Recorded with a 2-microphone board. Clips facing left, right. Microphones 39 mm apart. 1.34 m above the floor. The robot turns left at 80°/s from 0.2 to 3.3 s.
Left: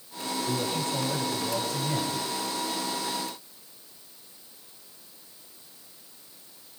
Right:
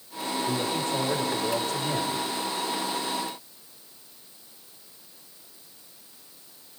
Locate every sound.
0.5 s a woman speaking: 5° left, 6 m; by 2.2 s 140° right, 6 m